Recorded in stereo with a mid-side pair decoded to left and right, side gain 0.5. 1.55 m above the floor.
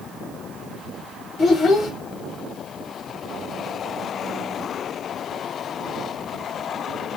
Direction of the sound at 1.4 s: 50° left.